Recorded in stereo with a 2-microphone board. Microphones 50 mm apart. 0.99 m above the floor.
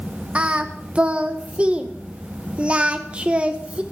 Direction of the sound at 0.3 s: 25° right (ahead or behind).